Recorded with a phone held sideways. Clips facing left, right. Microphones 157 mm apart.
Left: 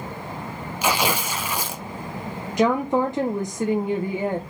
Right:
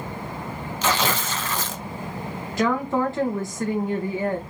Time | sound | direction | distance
0.8 | tearing paper | 10° left (ahead or behind) | 0.5 m
2.6 | a woman speaking | 15° left (ahead or behind) | 0.7 m